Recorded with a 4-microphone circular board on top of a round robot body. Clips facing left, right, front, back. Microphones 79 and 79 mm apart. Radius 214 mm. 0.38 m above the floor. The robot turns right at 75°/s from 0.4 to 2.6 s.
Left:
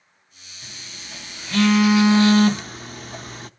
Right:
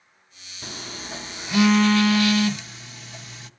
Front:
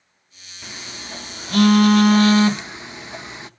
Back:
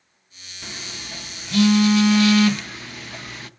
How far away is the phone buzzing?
About 0.8 m.